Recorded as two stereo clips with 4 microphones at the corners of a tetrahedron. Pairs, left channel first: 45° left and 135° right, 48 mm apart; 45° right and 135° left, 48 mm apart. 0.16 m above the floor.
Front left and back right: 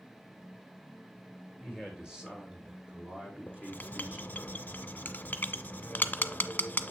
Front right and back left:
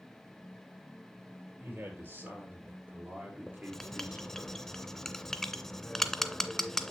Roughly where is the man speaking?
Behind left.